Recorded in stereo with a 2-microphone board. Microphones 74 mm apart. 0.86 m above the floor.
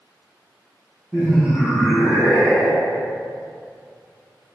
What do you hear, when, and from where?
1.1 s laughter: 5° right (ahead or behind), 0.6 m; by 3.0 s 70° left (ahead or behind), 1.1 m